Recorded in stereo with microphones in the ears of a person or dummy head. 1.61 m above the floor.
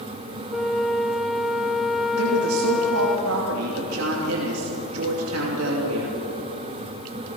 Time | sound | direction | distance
0.5 | a flute | centre (ahead or behind) | 0.9 m
2.2 | a woman speaking | 85° right | 3 m